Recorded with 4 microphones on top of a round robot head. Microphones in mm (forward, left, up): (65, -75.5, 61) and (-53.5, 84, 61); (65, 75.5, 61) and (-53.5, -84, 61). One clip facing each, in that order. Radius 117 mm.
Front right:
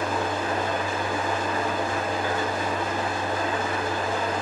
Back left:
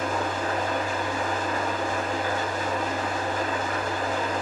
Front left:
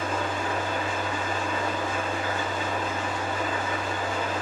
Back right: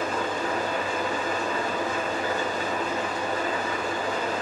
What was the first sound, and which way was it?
An engine running, 75° right.